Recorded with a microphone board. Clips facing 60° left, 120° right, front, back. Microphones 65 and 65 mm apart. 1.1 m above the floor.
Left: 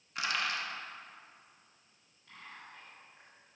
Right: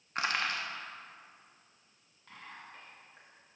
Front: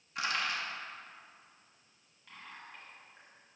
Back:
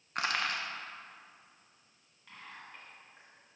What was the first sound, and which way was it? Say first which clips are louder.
Crushing: right 2 dB, back 1 dB; 160° right.